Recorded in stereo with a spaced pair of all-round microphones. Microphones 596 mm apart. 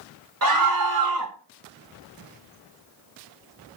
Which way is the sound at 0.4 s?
35° right (ahead or behind).